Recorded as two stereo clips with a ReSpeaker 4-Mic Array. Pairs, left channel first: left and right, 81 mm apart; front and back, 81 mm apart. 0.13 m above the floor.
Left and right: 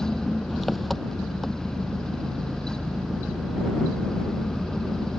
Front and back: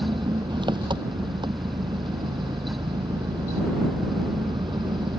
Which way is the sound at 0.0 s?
Straight behind.